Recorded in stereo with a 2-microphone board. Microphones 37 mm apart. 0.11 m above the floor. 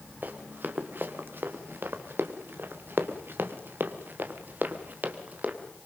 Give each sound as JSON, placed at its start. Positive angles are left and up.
{"t": 0.2, "sound": "running footsteps", "side_deg": -60, "distance_m": 3.0}